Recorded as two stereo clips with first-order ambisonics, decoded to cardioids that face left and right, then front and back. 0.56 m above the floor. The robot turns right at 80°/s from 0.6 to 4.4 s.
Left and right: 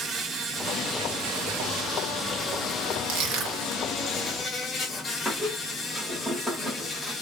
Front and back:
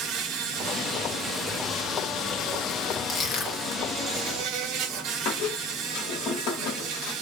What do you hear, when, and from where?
0.0 s an insect: 155° right, 0.8 m; by 7.2 s 150° left, 0.8 m
3.1 s crushing: 70° right, 1.2 m; by 3.8 s 10° right, 1.2 m
5.2 s a squeak: 10° left, 1.1 m